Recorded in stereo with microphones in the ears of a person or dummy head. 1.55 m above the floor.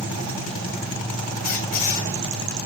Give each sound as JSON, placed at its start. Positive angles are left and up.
{"t": 1.4, "sound": "a squeak", "side_deg": 50, "distance_m": 3.0}